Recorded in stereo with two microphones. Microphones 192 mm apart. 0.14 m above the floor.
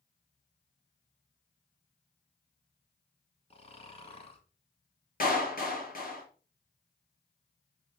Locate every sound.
3.5 s snoring: 30° left (ahead or behind), 1.3 m
5.2 s a clap: 50° left (ahead or behind), 2.5 m